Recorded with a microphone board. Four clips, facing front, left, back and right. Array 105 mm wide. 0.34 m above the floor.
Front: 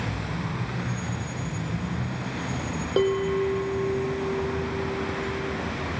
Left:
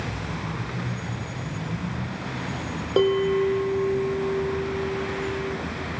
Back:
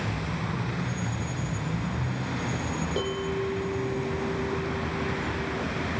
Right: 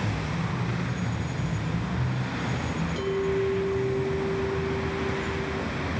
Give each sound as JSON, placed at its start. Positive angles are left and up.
{"t": 3.0, "sound": "a bell", "azimuth_deg": 65, "distance_m": 3.0}